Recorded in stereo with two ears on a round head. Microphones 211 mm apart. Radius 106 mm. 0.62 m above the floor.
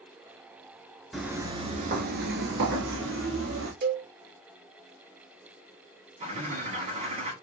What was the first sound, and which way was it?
Footsteps, centre (ahead or behind).